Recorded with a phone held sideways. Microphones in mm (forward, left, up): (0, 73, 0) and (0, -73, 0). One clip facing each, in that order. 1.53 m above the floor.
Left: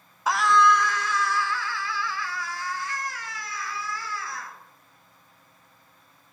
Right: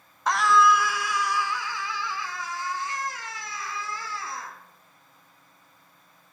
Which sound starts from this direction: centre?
A scream, at 0.3 s.